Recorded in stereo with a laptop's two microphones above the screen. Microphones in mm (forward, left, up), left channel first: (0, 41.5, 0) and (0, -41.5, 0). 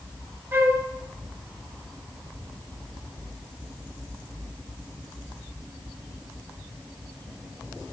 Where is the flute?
30° right (ahead or behind), 0.7 m.